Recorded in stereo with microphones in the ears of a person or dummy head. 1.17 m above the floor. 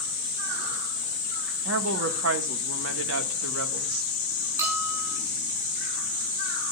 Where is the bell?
20° right (ahead or behind), 9 m.